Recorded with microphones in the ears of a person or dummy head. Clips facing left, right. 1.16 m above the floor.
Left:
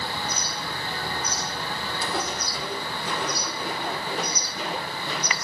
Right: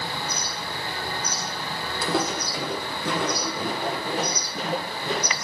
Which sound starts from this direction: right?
Footsteps, at 2.0 s.